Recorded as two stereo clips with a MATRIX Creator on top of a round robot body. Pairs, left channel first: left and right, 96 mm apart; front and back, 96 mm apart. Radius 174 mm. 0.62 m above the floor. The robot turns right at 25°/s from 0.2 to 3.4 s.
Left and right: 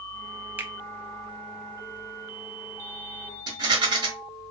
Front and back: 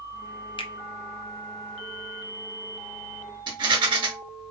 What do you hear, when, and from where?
0.6 s a finger snap: 20° right, 0.8 m
3.5 s a rattle: 135° right, 0.7 m